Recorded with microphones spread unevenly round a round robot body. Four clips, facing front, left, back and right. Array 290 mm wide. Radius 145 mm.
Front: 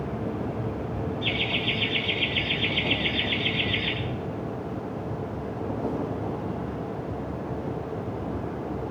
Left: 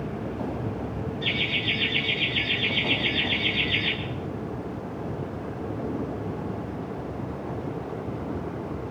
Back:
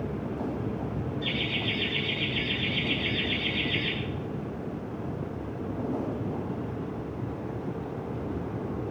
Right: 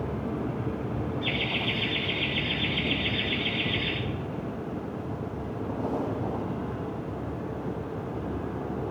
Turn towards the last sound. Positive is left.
turn(degrees=70)